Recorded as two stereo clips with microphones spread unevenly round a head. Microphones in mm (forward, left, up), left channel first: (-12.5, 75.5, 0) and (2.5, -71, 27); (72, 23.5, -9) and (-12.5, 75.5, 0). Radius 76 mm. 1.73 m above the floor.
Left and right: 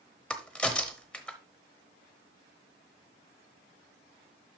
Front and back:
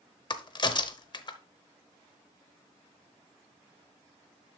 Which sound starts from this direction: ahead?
A crack, at 0.3 s.